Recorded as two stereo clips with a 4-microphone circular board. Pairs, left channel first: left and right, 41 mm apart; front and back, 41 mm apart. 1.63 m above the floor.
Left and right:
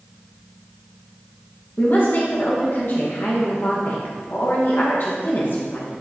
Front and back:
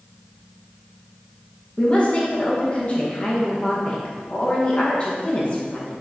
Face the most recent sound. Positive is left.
turn(degrees=60)